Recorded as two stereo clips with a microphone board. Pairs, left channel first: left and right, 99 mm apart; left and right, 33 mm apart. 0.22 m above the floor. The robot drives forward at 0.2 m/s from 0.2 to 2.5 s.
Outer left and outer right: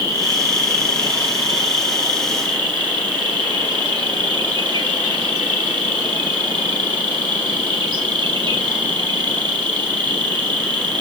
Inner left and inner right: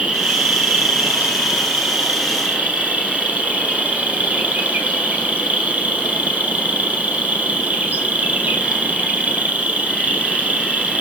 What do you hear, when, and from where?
0.0 s an insect: 45° right (ahead or behind), 1.1 m; by 11.0 s 60° right (ahead or behind), 0.9 m